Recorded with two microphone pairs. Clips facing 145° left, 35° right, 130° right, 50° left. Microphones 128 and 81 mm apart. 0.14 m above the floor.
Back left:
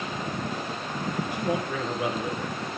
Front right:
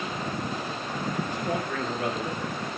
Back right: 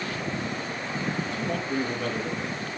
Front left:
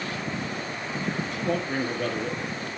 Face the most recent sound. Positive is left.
turn(degrees=65)